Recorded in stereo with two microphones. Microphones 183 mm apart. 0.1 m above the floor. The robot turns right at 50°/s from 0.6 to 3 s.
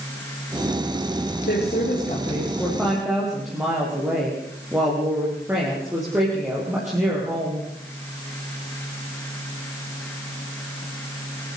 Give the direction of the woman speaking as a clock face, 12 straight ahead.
8 o'clock.